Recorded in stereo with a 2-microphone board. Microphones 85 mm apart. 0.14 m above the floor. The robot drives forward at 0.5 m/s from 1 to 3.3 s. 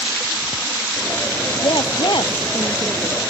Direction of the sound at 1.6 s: 65° left (ahead or behind).